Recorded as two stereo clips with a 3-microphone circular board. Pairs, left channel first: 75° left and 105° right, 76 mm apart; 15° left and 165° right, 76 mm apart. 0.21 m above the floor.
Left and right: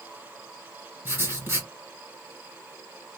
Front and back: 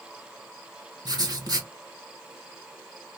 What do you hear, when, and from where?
1.1 s writing: 165° right, 2.5 m